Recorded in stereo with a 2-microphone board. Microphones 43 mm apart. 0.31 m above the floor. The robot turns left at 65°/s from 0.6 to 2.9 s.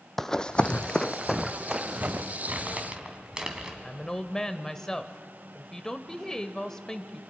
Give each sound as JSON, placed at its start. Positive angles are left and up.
{"t": 0.2, "sound": "running footsteps", "side_deg": 5, "distance_m": 0.5}
{"t": 2.5, "sound": "crumpling", "side_deg": -45, "distance_m": 2.0}
{"t": 3.8, "sound": "a woman speaking", "side_deg": 15, "distance_m": 0.9}